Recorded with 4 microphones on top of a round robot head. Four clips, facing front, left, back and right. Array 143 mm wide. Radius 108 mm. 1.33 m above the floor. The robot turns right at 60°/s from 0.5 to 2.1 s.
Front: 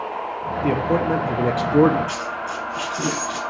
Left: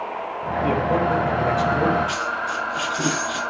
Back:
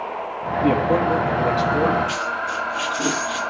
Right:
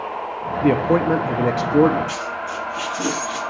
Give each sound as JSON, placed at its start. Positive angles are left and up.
{"t": 0.6, "sound": "a man speaking", "azimuth_deg": -110, "distance_m": 0.9}
{"t": 2.1, "sound": "a dropped coin", "azimuth_deg": 20, "distance_m": 3.5}